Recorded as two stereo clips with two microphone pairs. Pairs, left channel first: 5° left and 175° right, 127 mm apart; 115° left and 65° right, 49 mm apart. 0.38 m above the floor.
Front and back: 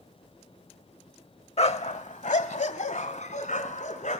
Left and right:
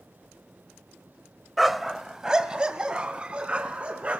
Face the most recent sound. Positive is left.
turn(degrees=-5)